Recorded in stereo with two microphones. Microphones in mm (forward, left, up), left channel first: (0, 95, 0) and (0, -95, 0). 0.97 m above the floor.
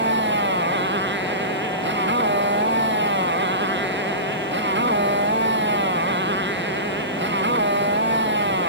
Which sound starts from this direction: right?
A motorcycle, at 0.0 s.